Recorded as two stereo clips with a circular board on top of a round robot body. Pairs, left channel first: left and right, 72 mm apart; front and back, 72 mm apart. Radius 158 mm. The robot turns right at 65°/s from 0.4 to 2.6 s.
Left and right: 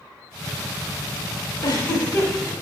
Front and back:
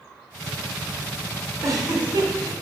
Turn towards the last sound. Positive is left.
turn(degrees=-170)